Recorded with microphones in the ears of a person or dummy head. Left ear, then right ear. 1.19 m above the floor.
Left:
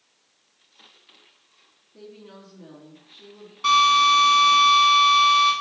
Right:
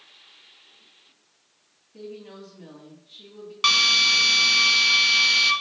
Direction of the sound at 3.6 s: 50° right (ahead or behind).